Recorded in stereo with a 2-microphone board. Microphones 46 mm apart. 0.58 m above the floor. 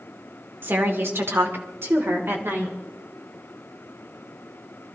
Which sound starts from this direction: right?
A woman speaking, at 0.6 s.